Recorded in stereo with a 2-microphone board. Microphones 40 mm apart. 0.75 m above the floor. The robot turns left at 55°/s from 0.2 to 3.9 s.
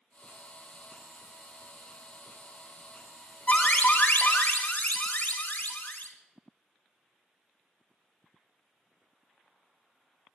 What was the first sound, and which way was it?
An alarm, 30° left (ahead or behind).